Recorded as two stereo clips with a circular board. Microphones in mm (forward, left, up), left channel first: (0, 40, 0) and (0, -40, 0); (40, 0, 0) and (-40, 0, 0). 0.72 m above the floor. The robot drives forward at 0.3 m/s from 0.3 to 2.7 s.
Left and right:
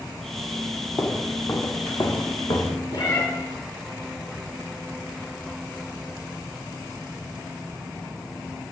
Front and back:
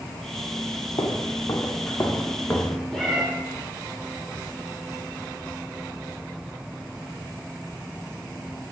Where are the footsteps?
35° left, 1.9 m; by 2.8 s 65° left, 2.5 m.